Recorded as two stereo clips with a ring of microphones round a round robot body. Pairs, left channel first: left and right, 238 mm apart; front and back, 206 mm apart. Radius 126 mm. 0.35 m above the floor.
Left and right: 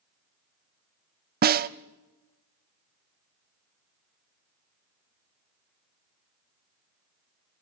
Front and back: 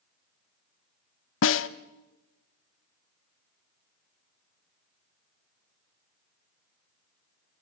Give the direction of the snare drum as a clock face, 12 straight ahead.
1 o'clock.